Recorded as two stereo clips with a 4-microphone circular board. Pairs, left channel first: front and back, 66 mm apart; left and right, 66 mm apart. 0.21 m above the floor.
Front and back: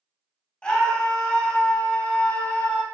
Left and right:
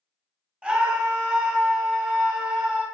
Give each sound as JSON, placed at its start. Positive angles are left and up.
{"t": 0.6, "sound": "a scream", "azimuth_deg": -45, "distance_m": 1.1}